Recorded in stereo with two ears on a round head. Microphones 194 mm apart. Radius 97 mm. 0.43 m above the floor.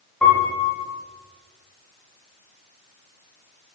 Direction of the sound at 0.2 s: 5° left (ahead or behind).